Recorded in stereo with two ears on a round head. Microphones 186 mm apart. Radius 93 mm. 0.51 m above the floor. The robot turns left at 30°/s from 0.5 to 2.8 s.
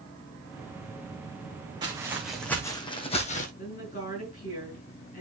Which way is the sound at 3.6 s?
40° left (ahead or behind).